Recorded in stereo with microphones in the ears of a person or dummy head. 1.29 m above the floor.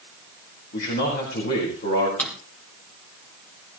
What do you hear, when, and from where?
0.7 s a man speaking: 55° left (ahead or behind), 4.5 m
2.2 s a drawer: 10° left (ahead or behind), 3 m